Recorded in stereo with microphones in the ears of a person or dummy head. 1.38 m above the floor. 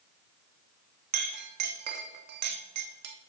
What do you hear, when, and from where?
1.1 s a clink: 60° right (ahead or behind), 0.7 m